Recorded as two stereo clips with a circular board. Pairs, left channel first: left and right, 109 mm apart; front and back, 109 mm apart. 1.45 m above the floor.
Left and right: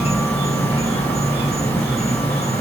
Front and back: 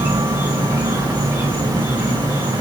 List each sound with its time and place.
0.0 s an insect: 110° left, 1.7 m